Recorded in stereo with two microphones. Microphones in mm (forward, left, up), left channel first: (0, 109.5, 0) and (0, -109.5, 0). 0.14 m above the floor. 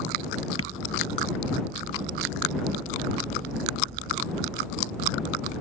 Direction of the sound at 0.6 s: 80° left.